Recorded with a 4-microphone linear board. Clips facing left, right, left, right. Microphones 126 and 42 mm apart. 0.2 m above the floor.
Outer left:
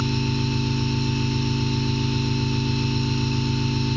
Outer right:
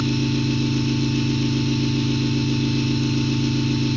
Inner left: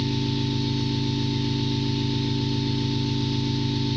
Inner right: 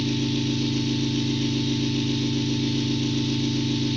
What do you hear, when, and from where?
0.0 s an engine running: 80° right, 1.2 m